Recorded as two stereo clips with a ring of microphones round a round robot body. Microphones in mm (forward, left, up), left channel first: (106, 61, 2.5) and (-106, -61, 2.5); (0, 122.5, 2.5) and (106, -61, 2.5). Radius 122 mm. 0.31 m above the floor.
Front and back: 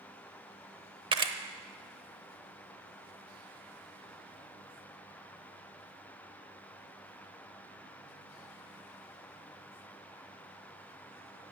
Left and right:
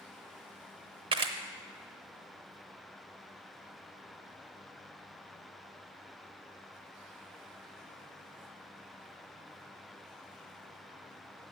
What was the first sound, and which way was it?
A camera shutter, 105° right.